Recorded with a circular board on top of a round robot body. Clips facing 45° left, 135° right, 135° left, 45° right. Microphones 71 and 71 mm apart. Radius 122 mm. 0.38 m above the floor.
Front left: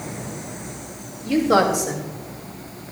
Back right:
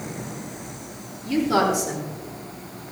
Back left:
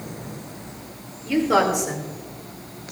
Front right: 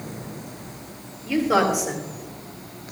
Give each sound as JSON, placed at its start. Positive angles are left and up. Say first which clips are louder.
{"t": 1.2, "sound": "a woman speaking", "louder": "front left 3 dB, back left 1 dB", "azimuth_deg": 45, "distance_m": 2.5}